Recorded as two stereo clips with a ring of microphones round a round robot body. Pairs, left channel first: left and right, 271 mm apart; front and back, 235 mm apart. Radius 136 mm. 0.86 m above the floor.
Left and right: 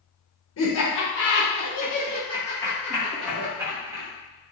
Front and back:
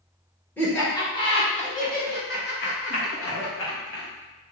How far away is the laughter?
About 1.2 m.